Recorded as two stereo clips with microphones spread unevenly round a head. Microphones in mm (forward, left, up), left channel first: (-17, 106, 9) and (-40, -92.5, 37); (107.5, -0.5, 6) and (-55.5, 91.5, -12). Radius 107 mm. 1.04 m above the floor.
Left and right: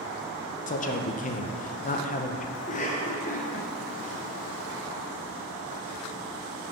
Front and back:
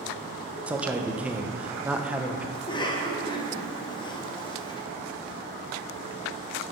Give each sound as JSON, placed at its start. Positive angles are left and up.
{"t": 0.7, "sound": "a man speaking", "azimuth_deg": 75, "distance_m": 0.5}
{"t": 2.5, "sound": "a cough", "azimuth_deg": 40, "distance_m": 1.0}